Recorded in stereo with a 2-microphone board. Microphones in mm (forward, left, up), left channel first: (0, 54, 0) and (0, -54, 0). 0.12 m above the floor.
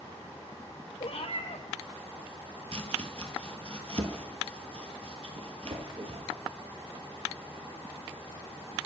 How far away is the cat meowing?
About 0.8 m.